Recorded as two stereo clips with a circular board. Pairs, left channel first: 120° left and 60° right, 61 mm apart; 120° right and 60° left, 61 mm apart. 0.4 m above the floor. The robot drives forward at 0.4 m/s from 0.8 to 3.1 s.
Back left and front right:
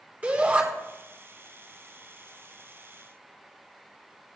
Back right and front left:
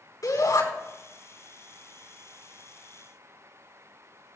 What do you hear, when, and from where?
0.2 s a shout: 125° right, 3.5 m